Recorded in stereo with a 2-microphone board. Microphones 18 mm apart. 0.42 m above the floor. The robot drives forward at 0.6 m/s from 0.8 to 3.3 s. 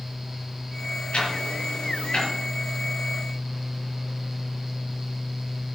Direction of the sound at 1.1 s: 70° left (ahead or behind).